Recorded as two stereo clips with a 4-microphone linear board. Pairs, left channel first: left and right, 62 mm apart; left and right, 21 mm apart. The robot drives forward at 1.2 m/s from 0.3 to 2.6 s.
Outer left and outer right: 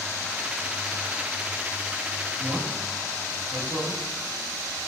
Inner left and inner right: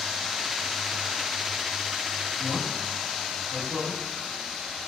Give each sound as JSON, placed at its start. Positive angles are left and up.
{"t": 2.4, "sound": "a man speaking", "side_deg": -5, "distance_m": 3.5}